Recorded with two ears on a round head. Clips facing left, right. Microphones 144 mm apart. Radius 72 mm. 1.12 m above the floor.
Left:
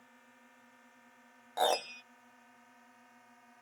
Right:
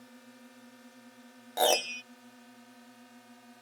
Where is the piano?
30° right (ahead or behind).